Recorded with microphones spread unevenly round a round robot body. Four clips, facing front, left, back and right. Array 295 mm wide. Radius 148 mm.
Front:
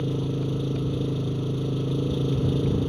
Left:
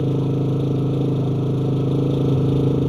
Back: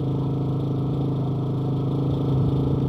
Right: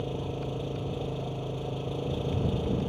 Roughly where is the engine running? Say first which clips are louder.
Left 12 dB, back 2 dB; left.